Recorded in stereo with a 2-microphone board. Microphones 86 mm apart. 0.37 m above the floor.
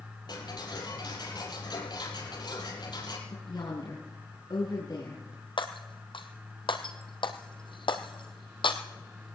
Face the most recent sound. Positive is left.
turn(degrees=75)  # may be behind; listen again after turning